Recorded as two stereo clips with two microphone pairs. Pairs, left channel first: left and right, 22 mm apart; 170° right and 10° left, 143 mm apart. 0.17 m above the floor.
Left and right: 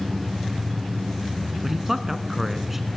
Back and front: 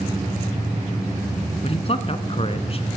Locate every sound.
1.6 s a man speaking: 160° right, 1.4 m